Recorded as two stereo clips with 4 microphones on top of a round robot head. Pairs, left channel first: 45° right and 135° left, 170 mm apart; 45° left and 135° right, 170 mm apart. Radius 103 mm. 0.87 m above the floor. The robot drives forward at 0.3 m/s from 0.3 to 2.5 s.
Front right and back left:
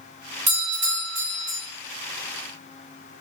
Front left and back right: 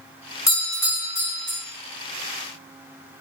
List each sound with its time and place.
0.5 s a doorbell: 115° left, 1.1 m; by 1.6 s 135° left, 1.3 m